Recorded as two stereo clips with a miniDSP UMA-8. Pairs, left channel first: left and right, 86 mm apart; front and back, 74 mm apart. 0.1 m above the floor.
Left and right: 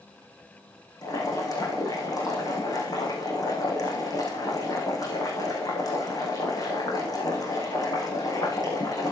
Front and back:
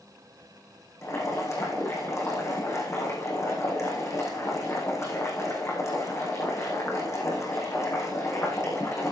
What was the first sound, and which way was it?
Boiling, 45° left.